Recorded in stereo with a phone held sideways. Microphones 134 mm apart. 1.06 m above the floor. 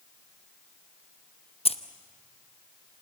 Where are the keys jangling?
45° left (ahead or behind), 0.8 m.